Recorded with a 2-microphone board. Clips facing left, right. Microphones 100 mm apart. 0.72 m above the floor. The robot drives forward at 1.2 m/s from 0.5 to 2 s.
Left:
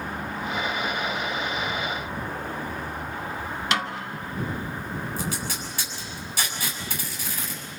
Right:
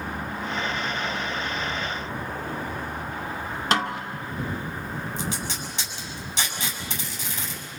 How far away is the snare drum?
About 1.1 m.